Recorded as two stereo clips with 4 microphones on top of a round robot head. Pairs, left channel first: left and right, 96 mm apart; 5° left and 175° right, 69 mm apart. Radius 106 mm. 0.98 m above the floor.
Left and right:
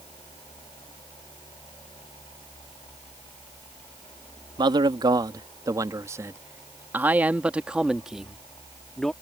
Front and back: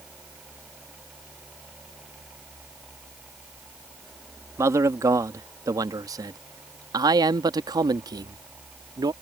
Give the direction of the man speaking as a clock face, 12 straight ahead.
4 o'clock.